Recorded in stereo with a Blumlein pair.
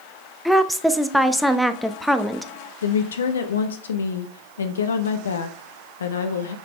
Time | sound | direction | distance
0.5 | a woman speaking | straight ahead | 0.7 m
2.8 | a woman speaking | 70° left | 0.8 m